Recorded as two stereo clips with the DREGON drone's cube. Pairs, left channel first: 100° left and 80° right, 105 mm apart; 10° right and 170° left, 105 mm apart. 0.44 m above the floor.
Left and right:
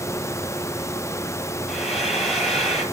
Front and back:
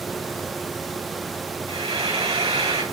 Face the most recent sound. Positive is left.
turn(degrees=-170)